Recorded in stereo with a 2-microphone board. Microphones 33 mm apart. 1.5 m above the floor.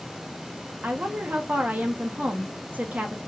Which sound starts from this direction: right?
A woman speaking, at 0.8 s.